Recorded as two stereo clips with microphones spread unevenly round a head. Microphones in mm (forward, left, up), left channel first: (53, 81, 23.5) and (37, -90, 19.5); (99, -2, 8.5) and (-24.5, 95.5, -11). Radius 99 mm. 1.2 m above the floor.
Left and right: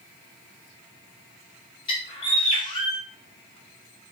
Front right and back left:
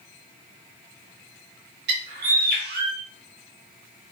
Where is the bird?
150° left, 0.5 m.